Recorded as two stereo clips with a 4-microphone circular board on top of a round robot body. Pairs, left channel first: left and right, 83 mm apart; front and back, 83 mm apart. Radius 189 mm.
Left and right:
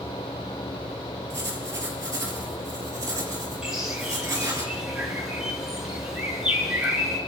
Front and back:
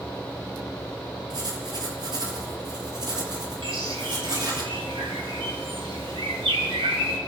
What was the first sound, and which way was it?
Writing, 145° right.